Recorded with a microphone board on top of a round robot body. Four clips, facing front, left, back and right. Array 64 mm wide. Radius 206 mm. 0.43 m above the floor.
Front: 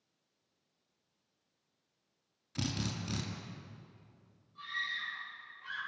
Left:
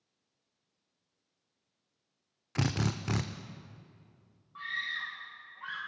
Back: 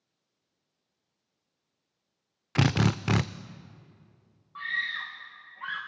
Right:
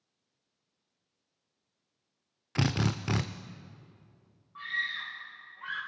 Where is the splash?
No splash in this recording.